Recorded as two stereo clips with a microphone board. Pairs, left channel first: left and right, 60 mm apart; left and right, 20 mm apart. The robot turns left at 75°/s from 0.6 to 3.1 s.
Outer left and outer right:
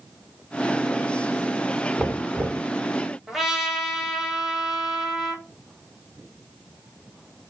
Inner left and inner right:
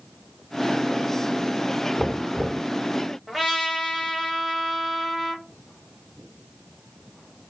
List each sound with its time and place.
2.0 s knocking: 10° right, 1.8 m; by 2.7 s 60° right, 1.8 m
3.3 s a trumpet: 5° right (ahead or behind), 1.9 m